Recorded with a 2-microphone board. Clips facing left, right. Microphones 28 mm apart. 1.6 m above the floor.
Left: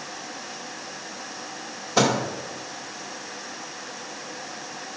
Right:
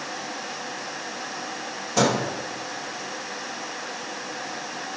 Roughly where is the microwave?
Left.